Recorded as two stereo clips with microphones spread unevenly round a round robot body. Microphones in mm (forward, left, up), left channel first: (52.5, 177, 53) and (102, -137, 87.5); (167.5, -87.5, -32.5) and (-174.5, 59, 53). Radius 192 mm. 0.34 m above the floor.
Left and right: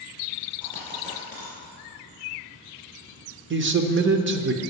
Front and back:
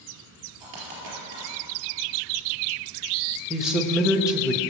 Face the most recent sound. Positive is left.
turn(degrees=-90)